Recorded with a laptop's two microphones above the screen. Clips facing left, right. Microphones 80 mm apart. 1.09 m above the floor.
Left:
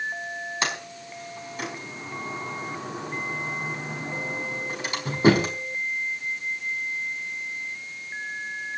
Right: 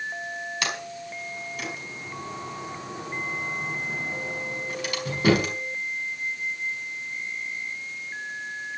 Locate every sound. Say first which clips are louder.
0.6 s a sliding door: left 1 dB; 30° left (ahead or behind), 4.5 m